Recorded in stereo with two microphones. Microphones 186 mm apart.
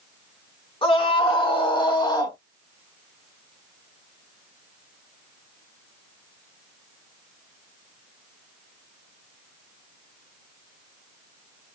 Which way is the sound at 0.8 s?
30° left (ahead or behind).